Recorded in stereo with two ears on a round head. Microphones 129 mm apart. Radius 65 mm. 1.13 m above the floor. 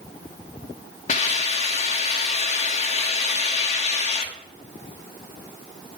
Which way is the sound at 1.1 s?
50° left (ahead or behind).